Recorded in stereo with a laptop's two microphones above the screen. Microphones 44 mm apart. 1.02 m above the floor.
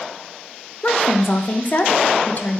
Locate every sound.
0.8 s a woman speaking: 40° left (ahead or behind), 0.5 m